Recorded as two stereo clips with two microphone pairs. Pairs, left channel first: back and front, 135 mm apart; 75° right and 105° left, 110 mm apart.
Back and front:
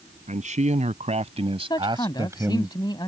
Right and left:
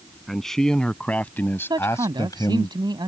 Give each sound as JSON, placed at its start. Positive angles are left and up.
{"t": 0.3, "sound": "a man speaking", "azimuth_deg": 10}
{"t": 1.7, "sound": "a man speaking", "azimuth_deg": 130}